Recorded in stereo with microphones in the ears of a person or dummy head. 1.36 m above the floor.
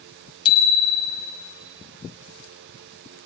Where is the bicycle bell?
25° left (ahead or behind), 2.5 m.